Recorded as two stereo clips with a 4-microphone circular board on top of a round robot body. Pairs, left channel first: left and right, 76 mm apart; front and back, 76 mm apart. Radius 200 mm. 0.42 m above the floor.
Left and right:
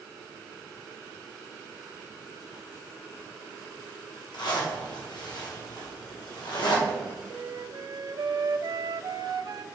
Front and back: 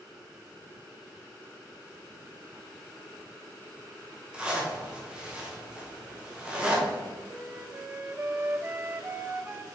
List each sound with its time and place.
4.3 s a zipper: 105° left, 2.5 m
7.3 s a flute: 120° right, 0.5 m